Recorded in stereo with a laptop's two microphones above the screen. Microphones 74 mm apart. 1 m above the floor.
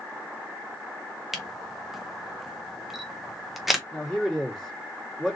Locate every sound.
1.3 s a camera shutter: 5° right (ahead or behind), 0.8 m
3.9 s a man speaking: 5° left (ahead or behind), 1.8 m